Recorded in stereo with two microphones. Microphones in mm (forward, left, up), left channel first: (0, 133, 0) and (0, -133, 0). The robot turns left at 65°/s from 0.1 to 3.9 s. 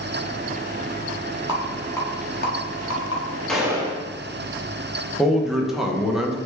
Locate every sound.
1.5 s a rattle: 15° right (ahead or behind), 1.0 m; by 3.2 s 60° left (ahead or behind), 1.0 m
3.5 s a gunshot: 5° left (ahead or behind), 0.8 m; by 4.1 s 20° right (ahead or behind), 0.8 m
5.2 s a man speaking: centre (ahead or behind), 0.6 m